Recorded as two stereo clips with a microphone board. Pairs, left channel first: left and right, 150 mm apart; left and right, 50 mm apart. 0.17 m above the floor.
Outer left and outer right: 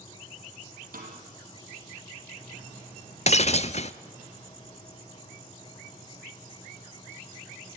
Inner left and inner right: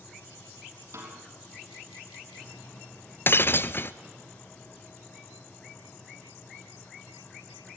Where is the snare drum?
75° right (ahead or behind), 4.5 m.